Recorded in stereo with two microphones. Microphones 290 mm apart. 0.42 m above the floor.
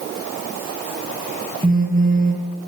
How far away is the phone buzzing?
About 5.5 m.